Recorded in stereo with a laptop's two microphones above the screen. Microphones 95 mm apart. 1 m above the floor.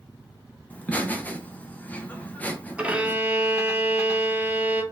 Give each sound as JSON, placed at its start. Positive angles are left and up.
{"t": 0.7, "sound": "laughter", "side_deg": 20, "distance_m": 0.7}
{"t": 2.8, "sound": "a violin", "side_deg": -15, "distance_m": 0.5}